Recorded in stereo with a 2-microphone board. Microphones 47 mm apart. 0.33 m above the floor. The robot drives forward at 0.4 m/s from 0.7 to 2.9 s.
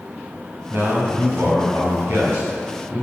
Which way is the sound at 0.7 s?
55° right (ahead or behind).